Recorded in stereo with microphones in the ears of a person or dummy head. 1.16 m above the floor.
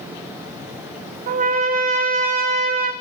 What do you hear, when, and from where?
1.3 s a trumpet: 40° right (ahead or behind), 0.7 m